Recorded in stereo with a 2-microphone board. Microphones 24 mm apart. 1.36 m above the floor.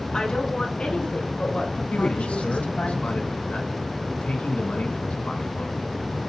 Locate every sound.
0.1 s a woman speaking: 40° left (ahead or behind), 4 m; by 2.9 s 80° left, 2.5 m
1.9 s a man speaking: 70° left (ahead or behind), 2 m